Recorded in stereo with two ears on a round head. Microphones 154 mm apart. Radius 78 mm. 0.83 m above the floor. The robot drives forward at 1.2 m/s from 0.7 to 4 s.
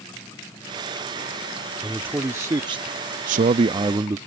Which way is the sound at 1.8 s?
10° right (ahead or behind).